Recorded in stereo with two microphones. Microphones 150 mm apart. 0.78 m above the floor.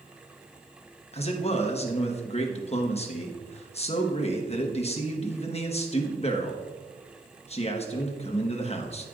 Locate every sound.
1.1 s a man speaking: 40° left (ahead or behind), 1.1 m